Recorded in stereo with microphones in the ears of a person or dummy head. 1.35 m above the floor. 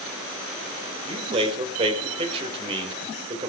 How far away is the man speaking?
About 5 m.